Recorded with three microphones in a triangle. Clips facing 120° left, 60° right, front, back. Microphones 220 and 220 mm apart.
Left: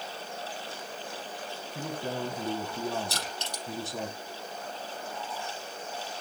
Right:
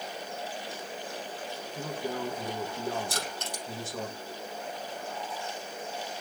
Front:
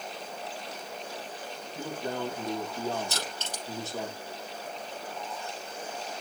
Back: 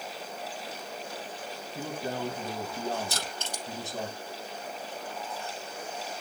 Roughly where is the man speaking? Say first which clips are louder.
Even, even; left.